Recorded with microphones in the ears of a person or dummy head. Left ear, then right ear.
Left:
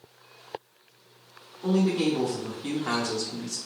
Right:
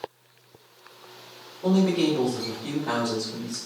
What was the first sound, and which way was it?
A man speaking, 5° right (ahead or behind).